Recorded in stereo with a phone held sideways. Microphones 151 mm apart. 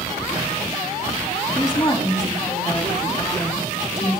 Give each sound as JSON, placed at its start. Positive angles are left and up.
{"t": 1.6, "sound": "a woman speaking", "side_deg": 20, "distance_m": 2.5}